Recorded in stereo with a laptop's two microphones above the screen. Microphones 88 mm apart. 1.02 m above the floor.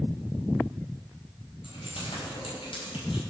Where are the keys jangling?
85° left, 4.5 m; by 3.2 s 75° left (ahead or behind), 5.5 m.